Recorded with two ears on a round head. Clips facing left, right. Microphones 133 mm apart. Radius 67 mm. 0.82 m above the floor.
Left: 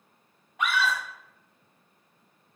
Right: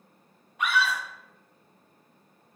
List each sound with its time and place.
0.6 s a scream: 60° left (ahead or behind), 0.6 m